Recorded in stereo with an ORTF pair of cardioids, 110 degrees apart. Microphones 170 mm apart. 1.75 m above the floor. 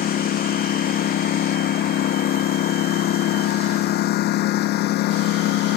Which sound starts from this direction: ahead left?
A lawn mower, at 0.0 s.